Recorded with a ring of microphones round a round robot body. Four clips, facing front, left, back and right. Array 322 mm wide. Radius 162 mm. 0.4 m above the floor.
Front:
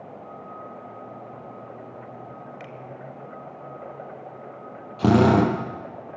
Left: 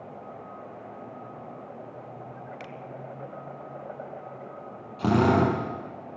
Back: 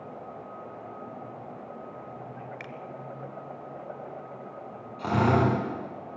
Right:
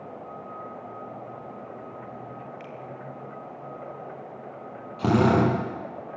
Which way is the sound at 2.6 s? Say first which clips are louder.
Right 1 dB, front 2 dB; 115° left.